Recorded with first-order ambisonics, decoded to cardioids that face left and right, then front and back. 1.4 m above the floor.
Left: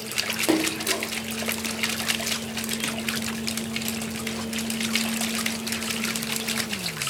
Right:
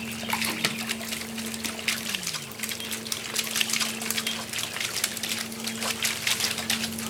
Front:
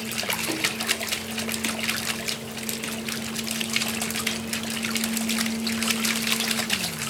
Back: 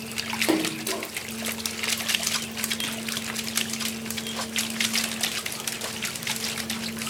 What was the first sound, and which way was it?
A splash, 120° left.